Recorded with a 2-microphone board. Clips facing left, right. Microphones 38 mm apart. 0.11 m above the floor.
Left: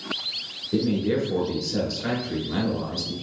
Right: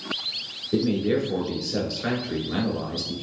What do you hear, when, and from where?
0.7 s a man speaking: 10° right (ahead or behind), 1.1 m